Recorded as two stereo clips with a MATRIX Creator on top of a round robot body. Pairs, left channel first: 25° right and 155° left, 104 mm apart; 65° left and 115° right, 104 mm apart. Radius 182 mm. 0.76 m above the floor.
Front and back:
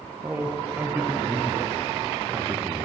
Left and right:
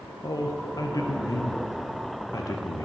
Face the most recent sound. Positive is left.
turn(degrees=90)